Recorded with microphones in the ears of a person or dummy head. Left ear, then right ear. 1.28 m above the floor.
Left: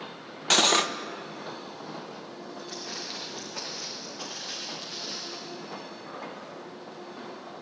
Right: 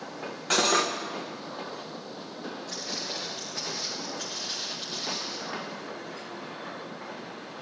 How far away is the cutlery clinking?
About 0.6 m.